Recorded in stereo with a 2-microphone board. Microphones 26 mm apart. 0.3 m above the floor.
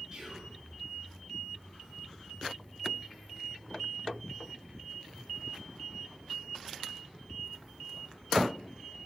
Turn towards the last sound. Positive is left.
turn(degrees=-30)  # may be behind; listen again after turning